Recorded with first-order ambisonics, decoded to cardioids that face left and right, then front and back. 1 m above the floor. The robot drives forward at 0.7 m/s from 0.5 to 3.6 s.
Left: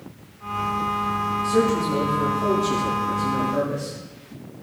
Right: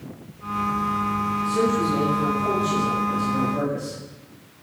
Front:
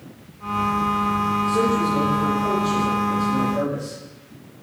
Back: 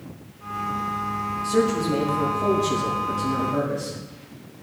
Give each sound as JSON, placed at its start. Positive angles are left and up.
{"t": 1.4, "sound": "a man speaking", "azimuth_deg": 140, "distance_m": 6.0}